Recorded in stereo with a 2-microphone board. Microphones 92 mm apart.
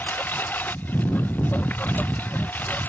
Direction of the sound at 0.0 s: 20° left (ahead or behind).